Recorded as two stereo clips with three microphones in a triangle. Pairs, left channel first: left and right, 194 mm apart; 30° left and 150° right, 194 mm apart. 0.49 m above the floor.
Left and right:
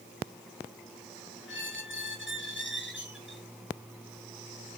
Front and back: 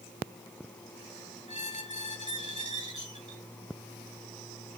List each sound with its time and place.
1.5 s a squeak: 80° left, 1.3 m